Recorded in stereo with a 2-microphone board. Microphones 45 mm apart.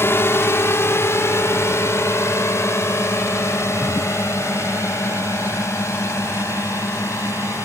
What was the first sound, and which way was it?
A drone, 60° left (ahead or behind).